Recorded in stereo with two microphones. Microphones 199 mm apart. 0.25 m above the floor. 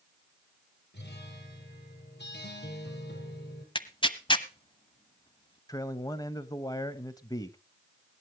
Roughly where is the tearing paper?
Left.